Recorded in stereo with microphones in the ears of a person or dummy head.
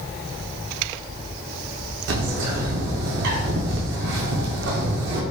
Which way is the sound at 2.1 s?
60° right (ahead or behind).